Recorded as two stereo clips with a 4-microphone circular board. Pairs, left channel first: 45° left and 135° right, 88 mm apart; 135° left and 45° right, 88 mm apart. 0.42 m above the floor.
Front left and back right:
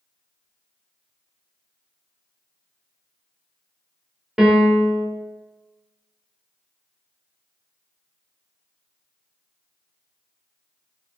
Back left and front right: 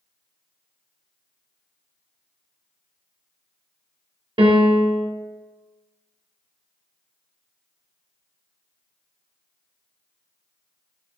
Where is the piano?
50° right, 0.6 m.